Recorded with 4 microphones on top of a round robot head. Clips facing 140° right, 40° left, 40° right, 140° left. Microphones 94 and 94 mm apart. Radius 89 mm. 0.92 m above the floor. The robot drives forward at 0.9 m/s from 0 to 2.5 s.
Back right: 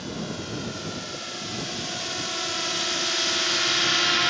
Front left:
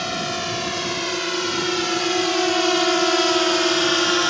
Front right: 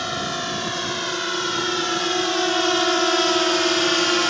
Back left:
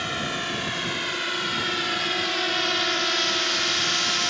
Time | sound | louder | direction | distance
0.0 | a drone | front left 7 dB, front right 3 dB | 30° left | ?